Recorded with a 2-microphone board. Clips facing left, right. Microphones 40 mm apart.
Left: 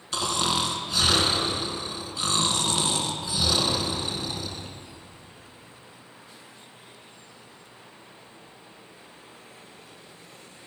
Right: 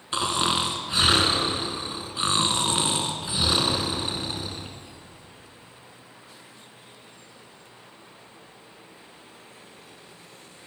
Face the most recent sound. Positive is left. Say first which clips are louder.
# right 2 dB
turn(degrees=-30)  # may be behind; listen again after turning